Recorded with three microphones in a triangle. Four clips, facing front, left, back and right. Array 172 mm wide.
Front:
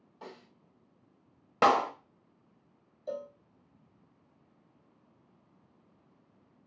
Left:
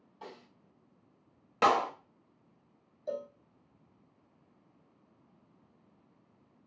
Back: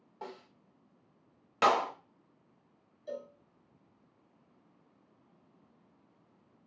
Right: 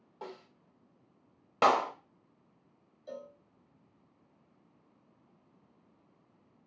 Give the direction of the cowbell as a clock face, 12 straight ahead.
10 o'clock.